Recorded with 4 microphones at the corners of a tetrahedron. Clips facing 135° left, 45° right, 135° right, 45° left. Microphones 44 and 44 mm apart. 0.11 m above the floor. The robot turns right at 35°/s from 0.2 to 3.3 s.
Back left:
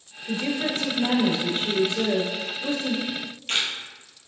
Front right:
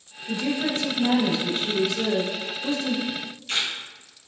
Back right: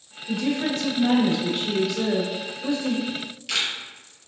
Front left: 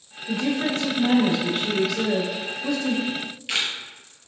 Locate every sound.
0.3 s a woman speaking: 75° left, 1.9 m; by 3.0 s 170° left, 1.9 m
3.1 s a camera shutter: 100° left, 1.4 m; by 3.7 s 110° left, 1.4 m